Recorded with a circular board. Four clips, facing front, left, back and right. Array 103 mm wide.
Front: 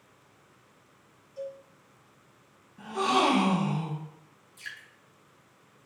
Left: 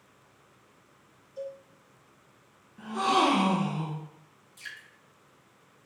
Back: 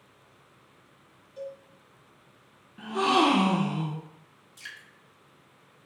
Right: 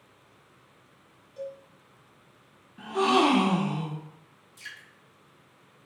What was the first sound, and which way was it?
A cowbell, 150° right.